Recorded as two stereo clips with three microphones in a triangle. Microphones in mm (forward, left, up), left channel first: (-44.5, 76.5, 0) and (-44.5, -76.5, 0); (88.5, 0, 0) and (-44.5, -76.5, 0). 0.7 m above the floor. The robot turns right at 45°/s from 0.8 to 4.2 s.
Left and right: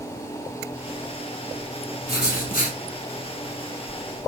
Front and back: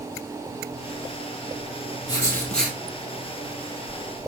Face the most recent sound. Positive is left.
turn(degrees=-170)